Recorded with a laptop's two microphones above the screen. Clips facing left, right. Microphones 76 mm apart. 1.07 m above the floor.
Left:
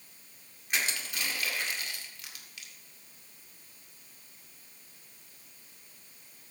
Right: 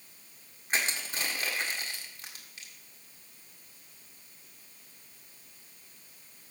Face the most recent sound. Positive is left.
turn(degrees=-35)  # may be behind; listen again after turning